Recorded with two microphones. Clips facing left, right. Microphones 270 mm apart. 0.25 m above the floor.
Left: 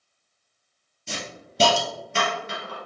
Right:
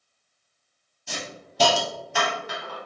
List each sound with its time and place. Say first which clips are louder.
1.1 s a hiss: left 1 dB; 25° left (ahead or behind), 1.1 m